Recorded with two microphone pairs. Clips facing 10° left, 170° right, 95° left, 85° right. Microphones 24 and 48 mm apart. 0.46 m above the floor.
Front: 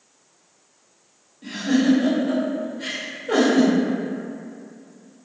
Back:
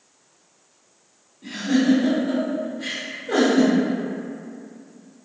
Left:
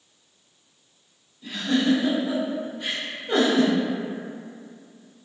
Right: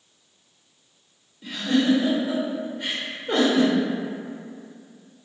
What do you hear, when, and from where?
1.4 s a giggle: 50° right, 0.8 m